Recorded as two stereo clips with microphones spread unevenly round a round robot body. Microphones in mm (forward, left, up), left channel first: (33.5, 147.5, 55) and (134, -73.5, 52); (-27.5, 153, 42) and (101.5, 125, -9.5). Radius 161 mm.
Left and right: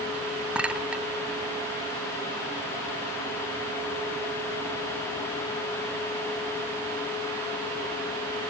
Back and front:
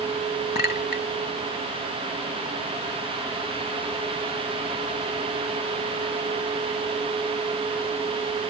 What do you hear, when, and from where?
0.6 s a clink: 150° right